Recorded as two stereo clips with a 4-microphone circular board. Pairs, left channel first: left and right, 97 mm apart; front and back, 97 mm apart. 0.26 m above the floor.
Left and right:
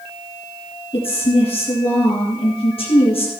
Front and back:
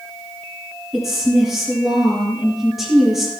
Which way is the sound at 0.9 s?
90° left.